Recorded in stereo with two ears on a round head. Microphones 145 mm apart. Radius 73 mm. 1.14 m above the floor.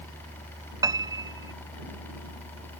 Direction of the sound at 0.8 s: 20° right (ahead or behind).